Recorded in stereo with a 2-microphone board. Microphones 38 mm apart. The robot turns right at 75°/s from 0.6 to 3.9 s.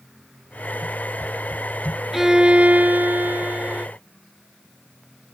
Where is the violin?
170° right; by 3.9 s 40° right.